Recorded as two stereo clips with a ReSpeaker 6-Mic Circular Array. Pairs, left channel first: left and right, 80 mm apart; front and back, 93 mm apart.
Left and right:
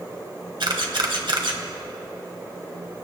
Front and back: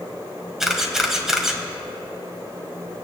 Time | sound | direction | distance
0.6 | a camera shutter | 95° right | 1.9 m